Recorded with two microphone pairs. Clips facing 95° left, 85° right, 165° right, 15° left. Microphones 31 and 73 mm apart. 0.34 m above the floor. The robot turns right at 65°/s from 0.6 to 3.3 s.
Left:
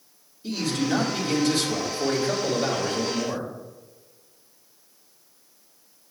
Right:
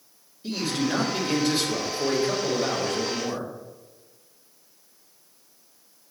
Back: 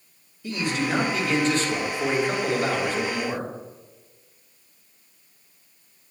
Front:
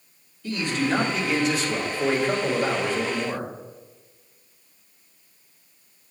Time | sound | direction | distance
0.4 | a man speaking | 115° right | 1.6 m